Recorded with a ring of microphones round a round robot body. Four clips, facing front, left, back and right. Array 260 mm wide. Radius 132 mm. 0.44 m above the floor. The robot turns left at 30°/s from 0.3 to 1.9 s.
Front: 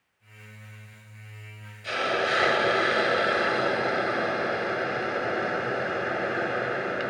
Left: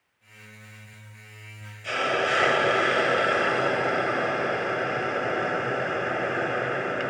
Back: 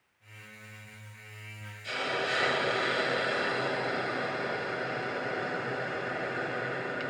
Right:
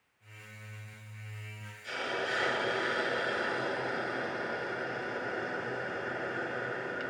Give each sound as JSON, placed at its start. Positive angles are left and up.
{"t": 1.8, "sound": "a hiss", "azimuth_deg": 55, "distance_m": 0.9}